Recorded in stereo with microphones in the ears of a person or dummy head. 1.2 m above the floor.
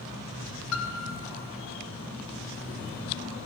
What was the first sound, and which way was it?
A piano, 70° left (ahead or behind).